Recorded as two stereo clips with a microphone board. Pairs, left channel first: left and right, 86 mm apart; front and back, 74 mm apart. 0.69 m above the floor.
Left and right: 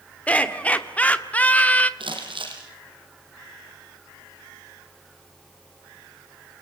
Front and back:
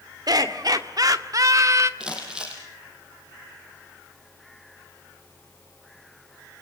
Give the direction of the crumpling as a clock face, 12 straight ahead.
3 o'clock.